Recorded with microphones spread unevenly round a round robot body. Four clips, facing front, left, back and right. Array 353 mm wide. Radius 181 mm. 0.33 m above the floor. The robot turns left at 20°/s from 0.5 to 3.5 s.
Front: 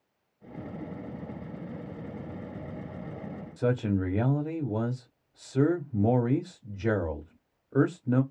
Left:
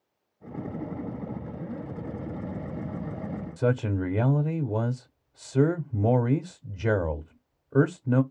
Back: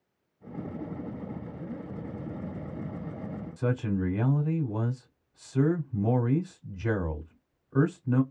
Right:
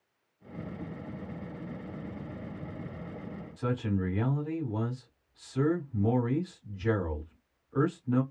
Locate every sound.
3.6 s a man speaking: 85° left, 1.2 m